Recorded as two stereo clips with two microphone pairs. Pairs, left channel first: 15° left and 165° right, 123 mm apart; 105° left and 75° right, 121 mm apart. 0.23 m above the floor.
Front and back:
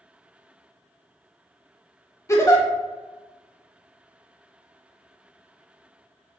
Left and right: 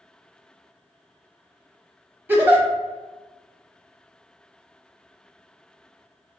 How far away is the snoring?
I don't hear snoring.